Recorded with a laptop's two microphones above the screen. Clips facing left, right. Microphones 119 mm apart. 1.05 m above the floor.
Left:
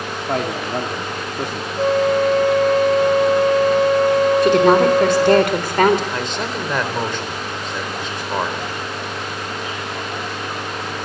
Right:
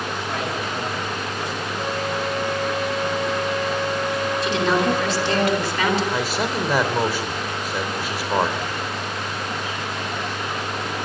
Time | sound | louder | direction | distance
0.3 | a man speaking | left 8 dB | 55° left (ahead or behind) | 2.5 m
1.8 | a flute | left 12 dB | 65° left (ahead or behind) | 0.8 m
4.4 | a woman speaking | left 6 dB | 50° left (ahead or behind) | 3.5 m
6.1 | a man speaking | right 1 dB | 10° right (ahead or behind) | 4.5 m